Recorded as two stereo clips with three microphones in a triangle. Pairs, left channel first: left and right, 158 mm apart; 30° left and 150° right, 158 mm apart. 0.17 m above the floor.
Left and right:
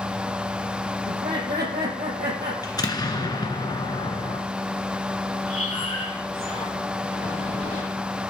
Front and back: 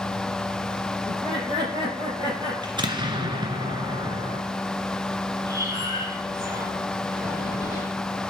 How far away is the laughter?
About 6.5 m.